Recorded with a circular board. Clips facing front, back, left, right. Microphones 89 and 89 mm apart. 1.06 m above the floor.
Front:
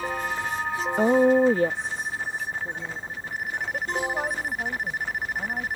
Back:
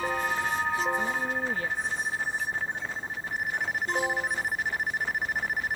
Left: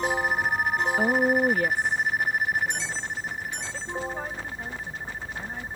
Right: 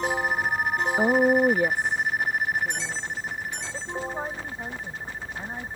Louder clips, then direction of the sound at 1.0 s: Front 12 dB, right 4 dB; 15° right.